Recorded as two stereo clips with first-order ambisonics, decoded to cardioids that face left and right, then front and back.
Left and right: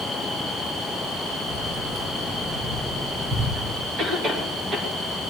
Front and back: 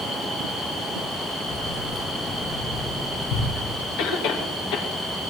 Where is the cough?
20° right, 2.5 m.